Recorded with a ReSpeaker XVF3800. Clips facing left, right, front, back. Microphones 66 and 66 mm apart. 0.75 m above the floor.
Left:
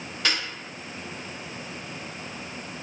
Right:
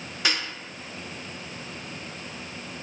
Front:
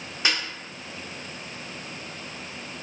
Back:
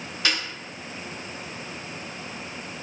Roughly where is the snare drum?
Ahead right.